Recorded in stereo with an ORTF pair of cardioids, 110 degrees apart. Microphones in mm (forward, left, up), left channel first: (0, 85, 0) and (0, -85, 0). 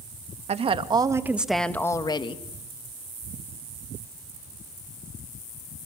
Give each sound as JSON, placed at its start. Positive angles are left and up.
{"t": 0.5, "sound": "a woman speaking", "azimuth_deg": -40, "distance_m": 2.0}